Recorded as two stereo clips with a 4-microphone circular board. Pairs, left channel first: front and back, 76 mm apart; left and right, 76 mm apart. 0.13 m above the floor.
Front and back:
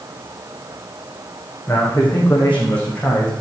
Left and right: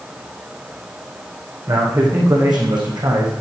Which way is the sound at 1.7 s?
70° right.